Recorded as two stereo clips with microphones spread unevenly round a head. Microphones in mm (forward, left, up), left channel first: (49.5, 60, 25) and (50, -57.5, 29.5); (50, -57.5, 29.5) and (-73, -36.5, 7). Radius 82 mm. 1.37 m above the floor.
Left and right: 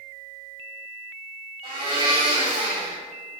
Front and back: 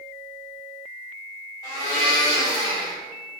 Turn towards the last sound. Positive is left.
turn(degrees=-55)